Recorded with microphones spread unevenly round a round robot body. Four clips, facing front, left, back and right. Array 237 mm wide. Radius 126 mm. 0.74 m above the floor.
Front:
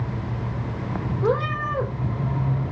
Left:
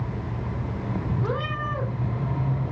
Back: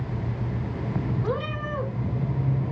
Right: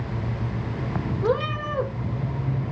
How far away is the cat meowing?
About 3.5 m.